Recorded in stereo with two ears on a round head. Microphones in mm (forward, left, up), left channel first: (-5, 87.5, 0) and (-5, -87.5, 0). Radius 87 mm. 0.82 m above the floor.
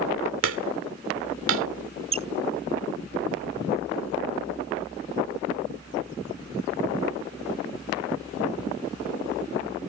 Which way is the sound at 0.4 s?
75° right (ahead or behind).